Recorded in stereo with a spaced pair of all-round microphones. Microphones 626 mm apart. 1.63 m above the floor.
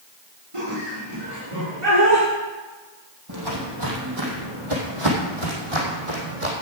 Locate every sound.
0.5 s laughter: 55° right (ahead or behind), 6 m
3.3 s footsteps: 35° right (ahead or behind), 3.5 m; by 6.5 s 65° right (ahead or behind), 4.5 m